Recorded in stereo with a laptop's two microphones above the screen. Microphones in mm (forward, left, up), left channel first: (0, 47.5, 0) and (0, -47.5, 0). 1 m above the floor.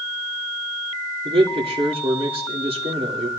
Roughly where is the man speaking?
Right.